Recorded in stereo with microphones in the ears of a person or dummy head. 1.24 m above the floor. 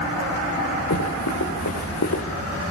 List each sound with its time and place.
0.9 s running footsteps: 75° left (ahead or behind), 7.5 m